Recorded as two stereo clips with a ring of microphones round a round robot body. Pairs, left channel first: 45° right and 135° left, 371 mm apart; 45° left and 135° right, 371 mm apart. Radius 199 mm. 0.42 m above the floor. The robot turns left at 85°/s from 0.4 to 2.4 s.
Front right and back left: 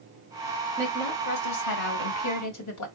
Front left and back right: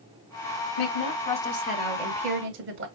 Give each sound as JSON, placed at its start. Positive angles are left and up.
{"t": 0.8, "sound": "a woman speaking", "azimuth_deg": 55, "distance_m": 1.3}